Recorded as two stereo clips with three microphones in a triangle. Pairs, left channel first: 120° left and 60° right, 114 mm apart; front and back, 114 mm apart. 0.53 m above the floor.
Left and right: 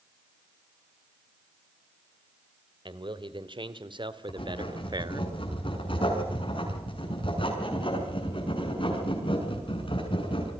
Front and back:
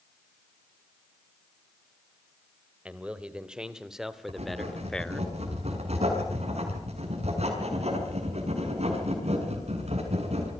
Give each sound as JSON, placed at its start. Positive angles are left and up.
{"t": 2.9, "sound": "a man speaking", "azimuth_deg": -100, "distance_m": 2.0}
{"t": 4.3, "sound": "writing", "azimuth_deg": 160, "distance_m": 7.0}